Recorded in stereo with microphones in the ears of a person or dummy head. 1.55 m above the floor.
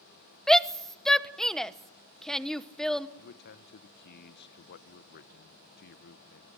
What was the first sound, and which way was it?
A shout, 5° left (ahead or behind).